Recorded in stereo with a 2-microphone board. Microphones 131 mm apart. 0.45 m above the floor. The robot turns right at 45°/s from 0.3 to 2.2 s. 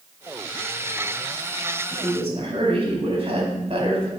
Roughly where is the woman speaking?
Right.